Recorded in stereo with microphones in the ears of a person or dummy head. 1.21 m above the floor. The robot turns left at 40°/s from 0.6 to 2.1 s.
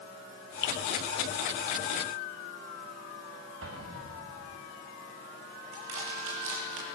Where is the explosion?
80° right, 1.8 m.